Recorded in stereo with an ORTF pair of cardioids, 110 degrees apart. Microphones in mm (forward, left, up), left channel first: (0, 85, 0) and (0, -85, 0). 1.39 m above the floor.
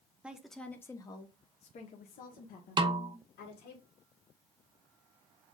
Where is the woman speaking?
5° right, 1.0 m; by 3.8 s 75° left, 2.0 m.